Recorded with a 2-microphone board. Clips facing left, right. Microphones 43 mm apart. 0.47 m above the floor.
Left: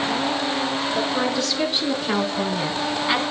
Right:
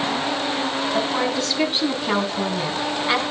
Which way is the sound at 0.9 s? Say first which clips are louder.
Right 1 dB; 40° right (ahead or behind).